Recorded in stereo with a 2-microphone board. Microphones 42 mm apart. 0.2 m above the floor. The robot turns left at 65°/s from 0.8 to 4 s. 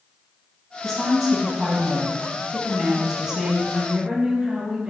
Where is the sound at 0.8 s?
5° left (ahead or behind), 1.1 m; by 3.6 s 5° right (ahead or behind), 1.1 m.